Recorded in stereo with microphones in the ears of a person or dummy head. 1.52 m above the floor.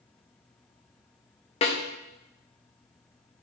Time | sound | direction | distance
1.6 | a snare drum | 35° left (ahead or behind) | 1.1 m